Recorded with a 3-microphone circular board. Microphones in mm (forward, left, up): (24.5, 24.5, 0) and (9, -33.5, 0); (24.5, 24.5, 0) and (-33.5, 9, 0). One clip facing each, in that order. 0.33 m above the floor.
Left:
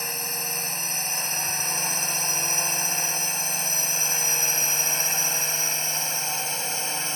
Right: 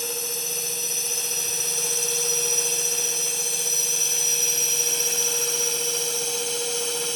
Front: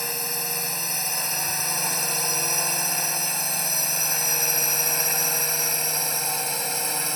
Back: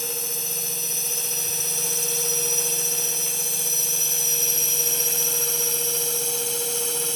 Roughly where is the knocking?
No knocking in this recording.